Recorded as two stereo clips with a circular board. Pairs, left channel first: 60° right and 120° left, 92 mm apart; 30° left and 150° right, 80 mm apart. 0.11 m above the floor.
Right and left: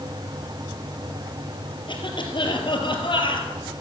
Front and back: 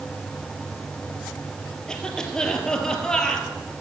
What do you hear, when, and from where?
1.9 s a cough: 50° right, 2.5 m